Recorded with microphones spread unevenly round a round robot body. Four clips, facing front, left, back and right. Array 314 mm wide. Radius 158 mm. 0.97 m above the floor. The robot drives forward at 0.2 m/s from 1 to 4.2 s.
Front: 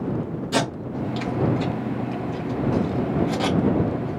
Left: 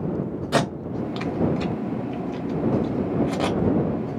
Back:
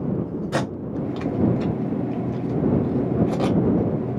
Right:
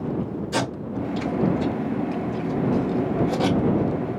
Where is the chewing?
I don't hear chewing.